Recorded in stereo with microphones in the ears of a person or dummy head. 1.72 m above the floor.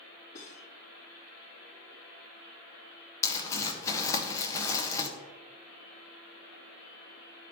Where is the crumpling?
20° left (ahead or behind), 1.3 m.